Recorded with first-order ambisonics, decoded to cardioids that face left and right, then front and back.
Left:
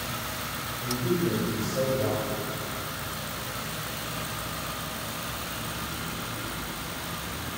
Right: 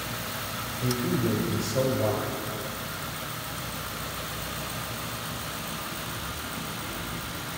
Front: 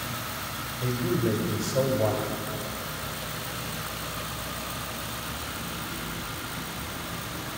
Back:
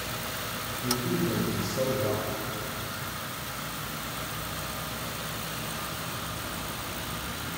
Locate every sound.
0.8 s a man speaking: 15° right, 1.8 m